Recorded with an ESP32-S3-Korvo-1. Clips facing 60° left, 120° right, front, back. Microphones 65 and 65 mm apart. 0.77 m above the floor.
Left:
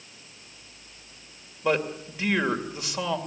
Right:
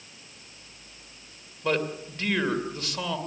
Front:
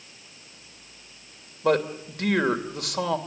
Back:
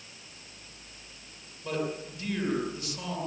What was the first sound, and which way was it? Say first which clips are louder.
A man speaking: left 2 dB, front 9 dB; 20° right.